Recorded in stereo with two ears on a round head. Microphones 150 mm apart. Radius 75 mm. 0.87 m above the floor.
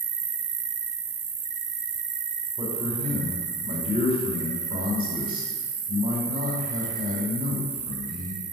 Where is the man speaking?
35° right (ahead or behind), 2.5 m.